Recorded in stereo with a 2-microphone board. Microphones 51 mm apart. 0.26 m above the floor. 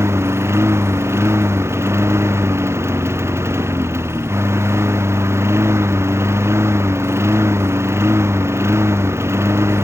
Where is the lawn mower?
60° right (ahead or behind).